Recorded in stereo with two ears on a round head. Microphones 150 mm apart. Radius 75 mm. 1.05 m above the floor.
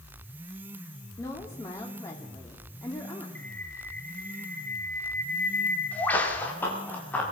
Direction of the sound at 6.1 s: 15° left (ahead or behind).